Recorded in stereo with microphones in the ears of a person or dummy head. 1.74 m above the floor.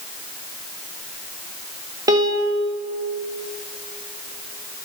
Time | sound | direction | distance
2.1 | a piano | 20° right (ahead or behind) | 0.8 m